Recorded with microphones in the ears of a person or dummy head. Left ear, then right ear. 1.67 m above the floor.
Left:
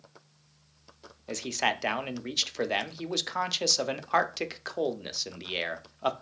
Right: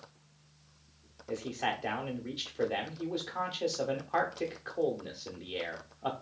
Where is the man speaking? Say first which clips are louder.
Left 5 dB; 60° left (ahead or behind), 0.6 m.